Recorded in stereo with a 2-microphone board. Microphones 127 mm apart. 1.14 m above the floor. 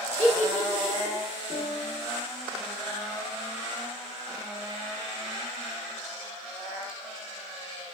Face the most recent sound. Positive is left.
turn(degrees=30)  # may be behind; listen again after turning